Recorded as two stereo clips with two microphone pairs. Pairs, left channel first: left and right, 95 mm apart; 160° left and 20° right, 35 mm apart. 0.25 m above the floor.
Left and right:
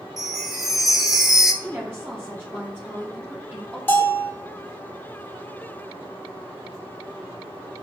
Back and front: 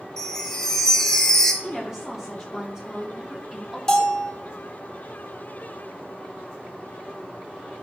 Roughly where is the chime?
Behind.